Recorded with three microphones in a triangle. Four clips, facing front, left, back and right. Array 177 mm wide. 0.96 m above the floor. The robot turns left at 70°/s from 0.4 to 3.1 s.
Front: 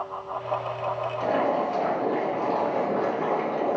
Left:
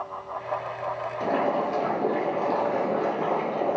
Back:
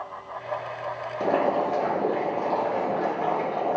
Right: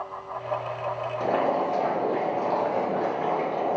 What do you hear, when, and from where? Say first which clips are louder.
1.2 s boiling: right 1 dB, back 2 dB; straight behind, 1.1 m; by 3.8 s 45° left, 1.1 m